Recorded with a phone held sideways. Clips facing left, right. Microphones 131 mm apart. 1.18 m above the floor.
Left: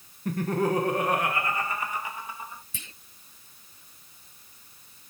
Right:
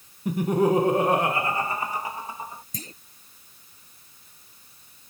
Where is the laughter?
10° right (ahead or behind); by 2.6 s 35° right (ahead or behind).